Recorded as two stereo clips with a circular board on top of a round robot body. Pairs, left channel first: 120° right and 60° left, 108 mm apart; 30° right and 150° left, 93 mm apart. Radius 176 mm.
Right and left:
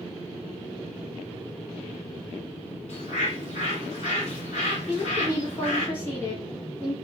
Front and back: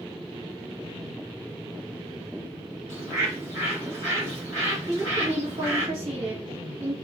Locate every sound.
2.9 s a bird: 145° right, 0.9 m
4.9 s a woman speaking: 170° left, 1.6 m